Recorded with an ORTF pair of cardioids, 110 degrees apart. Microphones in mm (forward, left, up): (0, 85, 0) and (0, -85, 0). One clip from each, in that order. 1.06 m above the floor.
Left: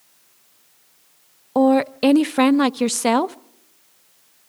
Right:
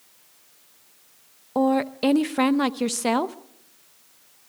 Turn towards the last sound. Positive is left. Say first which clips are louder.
# left 5 dB
turn(degrees=25)